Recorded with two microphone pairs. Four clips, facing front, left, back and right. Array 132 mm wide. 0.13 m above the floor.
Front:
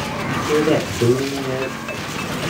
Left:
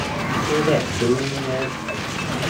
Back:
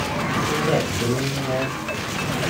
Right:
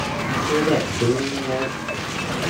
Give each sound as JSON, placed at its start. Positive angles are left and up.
{"t": 0.5, "sound": "a man speaking", "azimuth_deg": -10, "distance_m": 3.0}